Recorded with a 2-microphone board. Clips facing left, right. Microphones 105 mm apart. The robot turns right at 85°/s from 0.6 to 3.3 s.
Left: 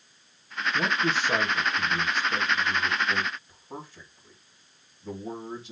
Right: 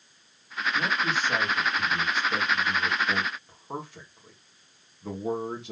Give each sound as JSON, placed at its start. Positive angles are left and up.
{"t": 0.7, "sound": "a man speaking", "azimuth_deg": 60, "distance_m": 2.5}